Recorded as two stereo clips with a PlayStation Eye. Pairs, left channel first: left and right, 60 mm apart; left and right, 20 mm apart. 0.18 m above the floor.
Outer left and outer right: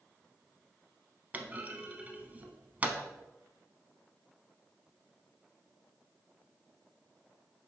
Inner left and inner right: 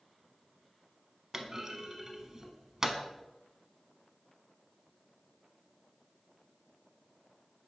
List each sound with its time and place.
1.3 s a clunk: 25° right (ahead or behind), 0.8 m